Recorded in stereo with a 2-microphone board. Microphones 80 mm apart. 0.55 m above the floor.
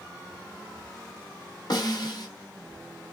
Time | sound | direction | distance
1.7 | a snare drum | 60° left (ahead or behind) | 1.0 m